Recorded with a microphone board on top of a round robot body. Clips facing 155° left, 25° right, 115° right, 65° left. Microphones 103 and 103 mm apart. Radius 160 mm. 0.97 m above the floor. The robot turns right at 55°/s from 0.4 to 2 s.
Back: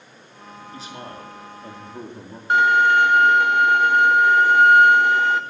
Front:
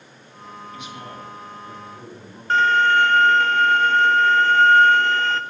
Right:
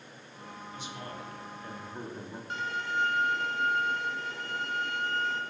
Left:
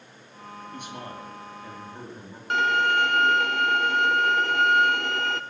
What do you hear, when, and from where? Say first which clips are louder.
0.7 s a man speaking: back 2 dB, left 3 dB; 100° left, 3 m; by 2.4 s 170° left, 3 m
2.5 s a violin: back 1 dB, left 11 dB; 80° left, 0.7 m